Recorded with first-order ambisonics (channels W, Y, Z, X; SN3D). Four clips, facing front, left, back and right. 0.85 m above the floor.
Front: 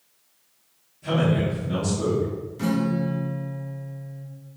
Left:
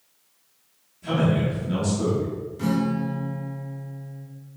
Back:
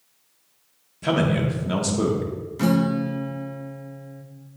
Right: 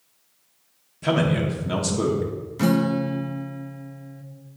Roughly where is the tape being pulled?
No tape being pulled in this recording.